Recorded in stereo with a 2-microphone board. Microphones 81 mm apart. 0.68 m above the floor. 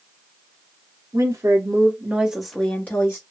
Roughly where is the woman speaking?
Right.